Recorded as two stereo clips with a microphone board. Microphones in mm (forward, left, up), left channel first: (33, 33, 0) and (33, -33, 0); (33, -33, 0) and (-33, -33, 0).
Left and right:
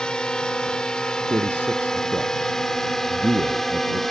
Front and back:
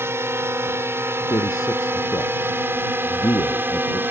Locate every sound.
0.0 s a drone: 160° left; by 4.1 s 175° left
1.3 s a man speaking: 30° right